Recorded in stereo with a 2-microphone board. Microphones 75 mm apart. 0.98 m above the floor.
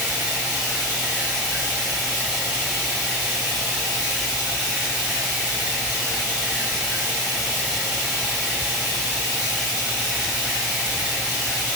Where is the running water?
20° right (ahead or behind), 2.5 m.